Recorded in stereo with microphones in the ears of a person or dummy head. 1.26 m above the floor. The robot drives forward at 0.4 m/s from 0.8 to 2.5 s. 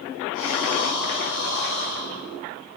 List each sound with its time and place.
0.3 s breathing: 80° left, 1.8 m; by 2.4 s 75° left (ahead or behind), 1.8 m